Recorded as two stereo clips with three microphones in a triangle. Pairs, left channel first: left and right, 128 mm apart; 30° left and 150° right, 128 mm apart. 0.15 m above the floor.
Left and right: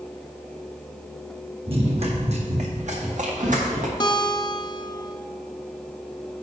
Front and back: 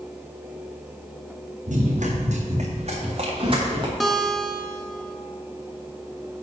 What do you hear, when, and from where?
1.7 s running footsteps: 135° right, 2.5 m; by 3.9 s 95° right, 3 m
4.0 s a guitar: 120° left, 0.7 m